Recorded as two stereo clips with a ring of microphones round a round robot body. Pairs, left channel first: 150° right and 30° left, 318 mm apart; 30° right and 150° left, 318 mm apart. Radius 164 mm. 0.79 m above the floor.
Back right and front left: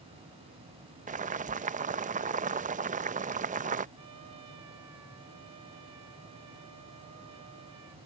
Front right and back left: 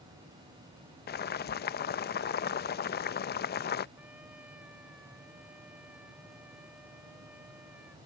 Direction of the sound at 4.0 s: 65° left.